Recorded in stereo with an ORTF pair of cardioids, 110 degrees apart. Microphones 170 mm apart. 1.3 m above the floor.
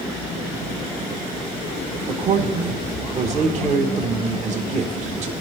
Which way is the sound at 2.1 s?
45° right.